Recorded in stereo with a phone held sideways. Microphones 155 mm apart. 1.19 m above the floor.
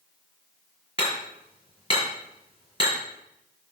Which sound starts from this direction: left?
Hammering, at 1.0 s.